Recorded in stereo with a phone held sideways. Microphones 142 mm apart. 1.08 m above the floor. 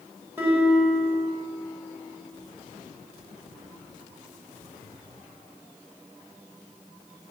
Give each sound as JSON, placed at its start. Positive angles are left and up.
{"t": 0.4, "sound": "a guitar", "side_deg": -10, "distance_m": 1.2}